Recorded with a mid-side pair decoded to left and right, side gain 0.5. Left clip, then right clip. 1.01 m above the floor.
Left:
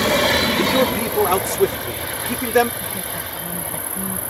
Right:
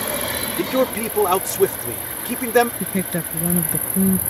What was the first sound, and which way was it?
A man speaking, 5° right.